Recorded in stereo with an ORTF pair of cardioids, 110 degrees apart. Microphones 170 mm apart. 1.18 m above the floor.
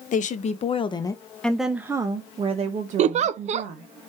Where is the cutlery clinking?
No cutlery clinking in this recording.